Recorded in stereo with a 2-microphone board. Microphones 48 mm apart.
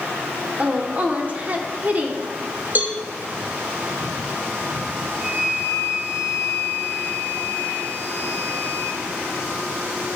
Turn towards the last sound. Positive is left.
turn(degrees=-20)  # may be behind; listen again after turning